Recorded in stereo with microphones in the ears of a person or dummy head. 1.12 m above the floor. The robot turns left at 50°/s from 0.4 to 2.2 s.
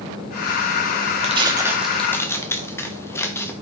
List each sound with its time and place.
1.2 s tearing paper: 30° right (ahead or behind), 0.8 m; by 3.5 s 15° left (ahead or behind), 0.8 m